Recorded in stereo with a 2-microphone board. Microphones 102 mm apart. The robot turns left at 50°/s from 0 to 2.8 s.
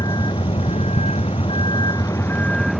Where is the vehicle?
140° left; by 2.8 s straight ahead.